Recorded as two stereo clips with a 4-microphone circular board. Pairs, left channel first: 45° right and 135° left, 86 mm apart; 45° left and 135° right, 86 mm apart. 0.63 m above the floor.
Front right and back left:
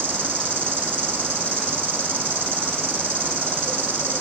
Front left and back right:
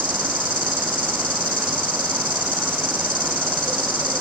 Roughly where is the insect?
Left.